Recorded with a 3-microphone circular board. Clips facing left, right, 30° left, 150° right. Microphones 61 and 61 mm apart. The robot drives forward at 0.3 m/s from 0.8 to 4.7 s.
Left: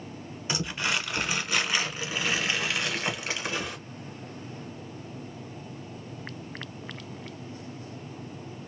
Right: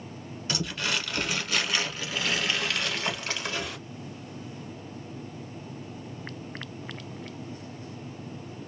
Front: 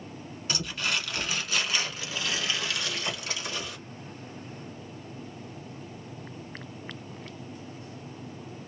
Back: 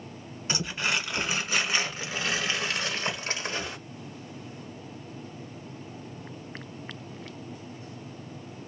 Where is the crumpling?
145° left, 1.2 m; by 3.8 s 165° left, 1.9 m.